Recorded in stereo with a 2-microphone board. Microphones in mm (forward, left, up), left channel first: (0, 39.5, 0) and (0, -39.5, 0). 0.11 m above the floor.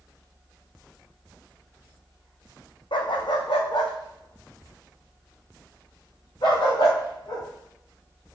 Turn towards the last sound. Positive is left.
turn(degrees=70)  # may be behind; listen again after turning